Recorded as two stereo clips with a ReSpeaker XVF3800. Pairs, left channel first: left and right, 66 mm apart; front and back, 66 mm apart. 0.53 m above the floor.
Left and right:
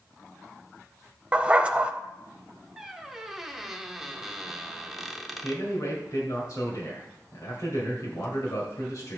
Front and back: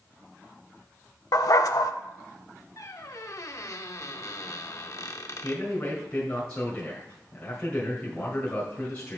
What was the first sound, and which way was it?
A dog barking, 20° right.